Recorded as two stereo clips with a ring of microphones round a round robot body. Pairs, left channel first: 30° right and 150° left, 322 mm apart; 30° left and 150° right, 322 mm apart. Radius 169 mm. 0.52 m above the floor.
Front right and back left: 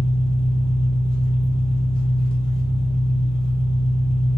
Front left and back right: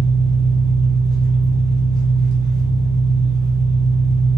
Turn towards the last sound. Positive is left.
turn(degrees=-100)